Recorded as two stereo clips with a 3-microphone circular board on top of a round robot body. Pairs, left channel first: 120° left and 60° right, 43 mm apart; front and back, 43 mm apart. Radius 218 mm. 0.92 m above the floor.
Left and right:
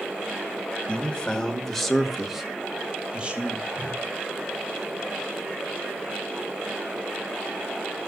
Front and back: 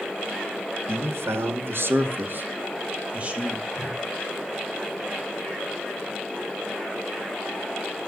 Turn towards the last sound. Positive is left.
turn(degrees=-110)